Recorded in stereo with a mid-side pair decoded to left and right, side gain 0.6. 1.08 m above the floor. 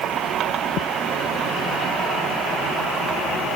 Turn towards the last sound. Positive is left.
No sound to turn to.